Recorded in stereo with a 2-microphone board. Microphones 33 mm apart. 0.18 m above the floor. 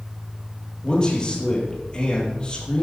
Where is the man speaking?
30° left (ahead or behind), 5 m.